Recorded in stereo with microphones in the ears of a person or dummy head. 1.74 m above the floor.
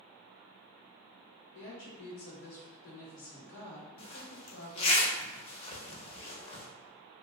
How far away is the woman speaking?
About 1.3 m.